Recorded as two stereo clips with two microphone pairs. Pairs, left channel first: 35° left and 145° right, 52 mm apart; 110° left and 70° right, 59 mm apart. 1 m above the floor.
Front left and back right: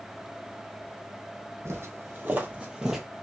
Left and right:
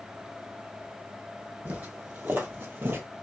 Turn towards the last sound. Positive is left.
turn(degrees=-60)